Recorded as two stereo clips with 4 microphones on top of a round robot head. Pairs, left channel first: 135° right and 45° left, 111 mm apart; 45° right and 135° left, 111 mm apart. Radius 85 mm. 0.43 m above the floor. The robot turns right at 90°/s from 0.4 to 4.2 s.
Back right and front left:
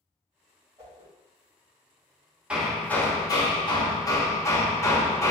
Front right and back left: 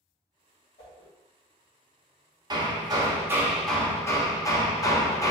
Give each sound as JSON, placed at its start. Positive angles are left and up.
{"t": 0.8, "sound": "a whoosh", "azimuth_deg": -15, "distance_m": 1.6}
{"t": 2.5, "sound": "hammering", "azimuth_deg": 120, "distance_m": 1.0}